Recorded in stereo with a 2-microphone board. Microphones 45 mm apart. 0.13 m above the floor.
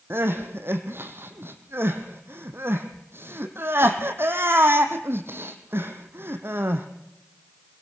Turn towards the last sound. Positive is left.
turn(degrees=-55)  # may be behind; listen again after turning